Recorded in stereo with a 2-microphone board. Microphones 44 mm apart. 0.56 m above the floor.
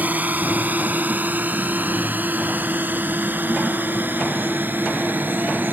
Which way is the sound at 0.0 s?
40° right (ahead or behind).